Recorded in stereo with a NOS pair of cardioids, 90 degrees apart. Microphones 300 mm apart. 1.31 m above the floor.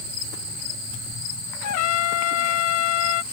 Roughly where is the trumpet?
Ahead left.